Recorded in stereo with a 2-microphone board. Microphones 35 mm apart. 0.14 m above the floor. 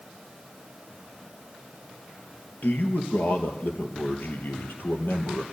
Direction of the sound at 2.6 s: 55° left (ahead or behind).